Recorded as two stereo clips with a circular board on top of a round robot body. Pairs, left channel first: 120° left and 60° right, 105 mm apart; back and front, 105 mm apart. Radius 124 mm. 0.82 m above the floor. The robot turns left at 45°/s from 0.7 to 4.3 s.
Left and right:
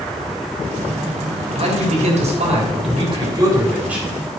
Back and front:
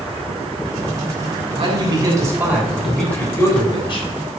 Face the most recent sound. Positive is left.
turn(degrees=-155)